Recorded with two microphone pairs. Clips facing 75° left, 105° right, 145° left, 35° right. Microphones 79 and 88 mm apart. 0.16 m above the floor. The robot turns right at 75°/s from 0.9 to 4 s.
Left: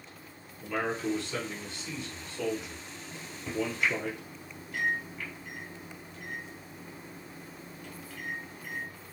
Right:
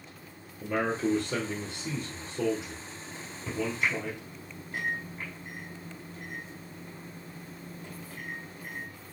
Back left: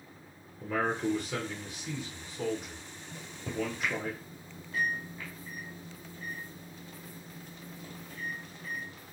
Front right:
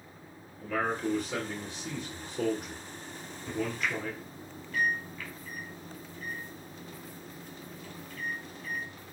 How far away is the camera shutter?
No camera shutter in this recording.